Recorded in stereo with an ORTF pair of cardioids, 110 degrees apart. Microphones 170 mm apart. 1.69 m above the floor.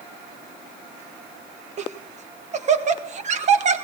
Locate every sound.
1.8 s laughter: 45° right, 1.8 m